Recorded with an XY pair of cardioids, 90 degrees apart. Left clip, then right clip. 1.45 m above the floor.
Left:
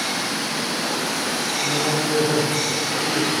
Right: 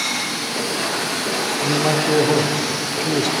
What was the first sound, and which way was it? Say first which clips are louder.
A man speaking: right 4 dB; 65° right.